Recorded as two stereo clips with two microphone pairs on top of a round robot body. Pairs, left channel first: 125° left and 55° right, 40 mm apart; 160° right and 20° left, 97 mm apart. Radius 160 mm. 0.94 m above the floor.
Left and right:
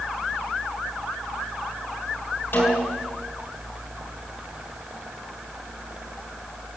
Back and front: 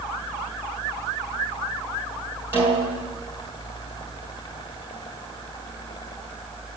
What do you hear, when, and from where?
2.5 s a snare drum: 85° left, 7.5 m